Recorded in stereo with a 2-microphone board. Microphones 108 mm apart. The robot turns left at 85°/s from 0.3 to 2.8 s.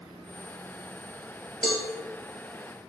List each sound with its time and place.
1.6 s a cowbell: centre (ahead or behind), 1.2 m; by 1.8 s 15° left (ahead or behind), 1.2 m